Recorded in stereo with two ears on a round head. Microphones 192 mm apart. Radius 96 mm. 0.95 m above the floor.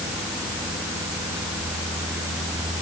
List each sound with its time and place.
Only background noise.